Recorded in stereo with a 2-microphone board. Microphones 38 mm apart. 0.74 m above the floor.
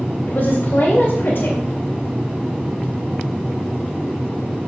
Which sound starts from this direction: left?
A woman speaking, at 0.3 s.